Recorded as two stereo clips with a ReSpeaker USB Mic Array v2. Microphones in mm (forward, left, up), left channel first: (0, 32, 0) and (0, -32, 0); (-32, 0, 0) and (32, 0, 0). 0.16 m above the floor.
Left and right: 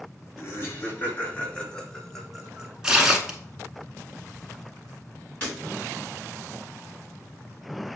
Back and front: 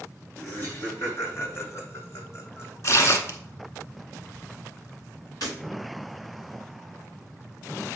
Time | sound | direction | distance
0.4 | laughter | 125° left | 2 m
2.8 | tearing paper | 165° right | 0.9 m
5.4 | breaking glass | 150° left | 4.5 m